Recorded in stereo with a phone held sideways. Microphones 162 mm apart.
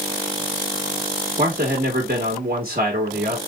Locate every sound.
1.4 s a man speaking: 65° right (ahead or behind), 1.5 m